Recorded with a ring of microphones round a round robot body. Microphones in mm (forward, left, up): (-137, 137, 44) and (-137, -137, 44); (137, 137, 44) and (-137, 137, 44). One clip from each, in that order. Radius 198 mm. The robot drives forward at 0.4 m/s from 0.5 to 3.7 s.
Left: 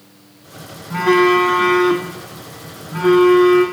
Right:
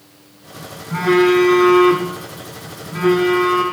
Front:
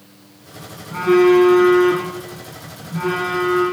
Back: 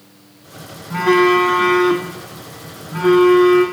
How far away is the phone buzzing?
About 1.1 m.